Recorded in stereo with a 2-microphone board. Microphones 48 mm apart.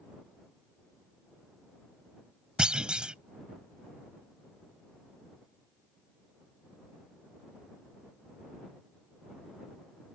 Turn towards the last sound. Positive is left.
turn(degrees=-20)  # may be behind; listen again after turning